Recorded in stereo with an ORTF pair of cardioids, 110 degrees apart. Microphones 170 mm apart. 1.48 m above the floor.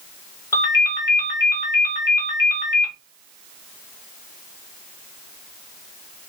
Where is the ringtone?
20° left, 1.3 m.